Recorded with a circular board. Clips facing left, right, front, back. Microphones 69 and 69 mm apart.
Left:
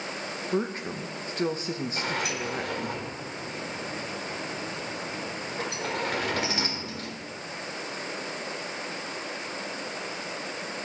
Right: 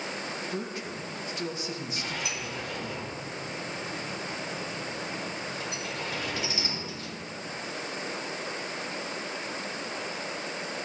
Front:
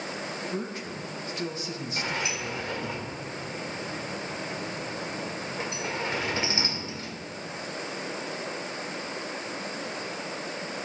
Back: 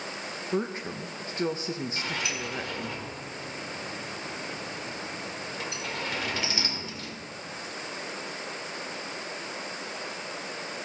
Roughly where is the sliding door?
Ahead left.